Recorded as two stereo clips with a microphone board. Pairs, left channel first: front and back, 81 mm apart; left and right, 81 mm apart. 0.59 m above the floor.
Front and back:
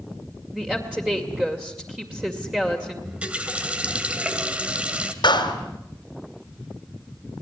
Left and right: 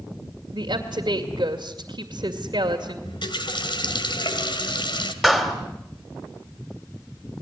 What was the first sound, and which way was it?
A woman speaking, 100° right.